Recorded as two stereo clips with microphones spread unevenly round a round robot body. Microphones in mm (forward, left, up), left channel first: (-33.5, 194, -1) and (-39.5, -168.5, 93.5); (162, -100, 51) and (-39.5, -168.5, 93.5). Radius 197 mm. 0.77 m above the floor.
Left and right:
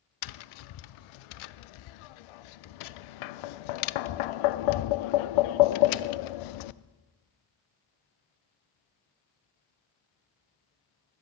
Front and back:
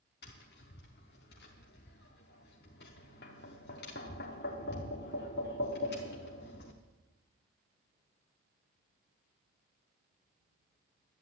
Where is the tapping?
80° left, 0.5 m.